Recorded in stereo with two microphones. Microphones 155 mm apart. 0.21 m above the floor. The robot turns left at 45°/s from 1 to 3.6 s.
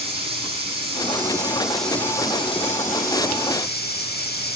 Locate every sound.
0.0 s running water: 145° right, 6.5 m; by 4.6 s 95° left, 6.5 m